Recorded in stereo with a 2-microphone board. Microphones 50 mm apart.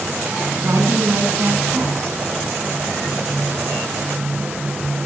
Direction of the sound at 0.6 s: 70° right (ahead or behind).